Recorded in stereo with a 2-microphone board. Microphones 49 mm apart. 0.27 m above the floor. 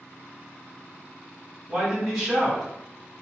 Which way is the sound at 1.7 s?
15° right (ahead or behind).